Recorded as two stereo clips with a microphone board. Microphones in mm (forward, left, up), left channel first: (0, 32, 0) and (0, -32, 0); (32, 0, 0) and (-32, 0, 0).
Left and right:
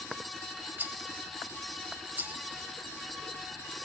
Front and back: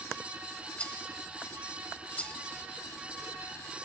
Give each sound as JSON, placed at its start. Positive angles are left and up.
{"t": 0.8, "sound": "a rattle", "azimuth_deg": -55, "distance_m": 1.0}